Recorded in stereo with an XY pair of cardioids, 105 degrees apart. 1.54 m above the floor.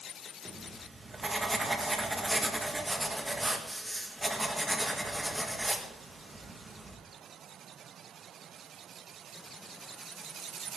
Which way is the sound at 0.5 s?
20° right.